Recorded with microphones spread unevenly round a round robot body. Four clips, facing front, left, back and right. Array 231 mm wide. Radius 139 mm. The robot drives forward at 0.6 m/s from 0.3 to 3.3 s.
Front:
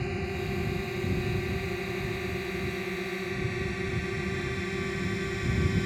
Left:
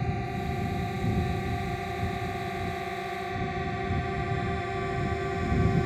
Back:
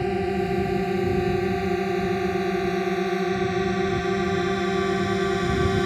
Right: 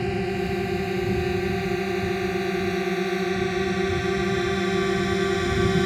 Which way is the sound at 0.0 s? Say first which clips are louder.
Right 7 dB, back 9 dB; 170° right.